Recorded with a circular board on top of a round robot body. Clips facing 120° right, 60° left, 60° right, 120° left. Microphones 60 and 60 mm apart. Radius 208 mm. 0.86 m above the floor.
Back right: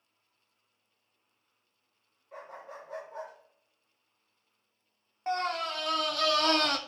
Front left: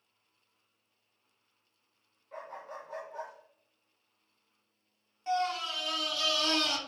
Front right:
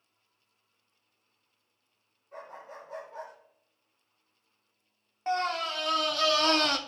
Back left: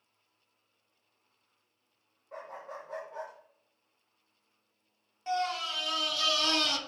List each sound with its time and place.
2.3 s a dog barking: 150° left, 0.9 m; by 3.3 s 165° right, 0.8 m
5.3 s a scream: 95° right, 0.8 m